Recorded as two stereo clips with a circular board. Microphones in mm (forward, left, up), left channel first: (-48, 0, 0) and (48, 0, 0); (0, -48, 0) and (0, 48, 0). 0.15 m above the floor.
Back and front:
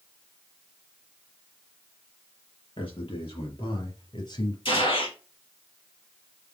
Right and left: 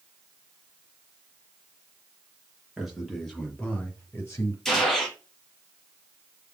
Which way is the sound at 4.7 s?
175° right.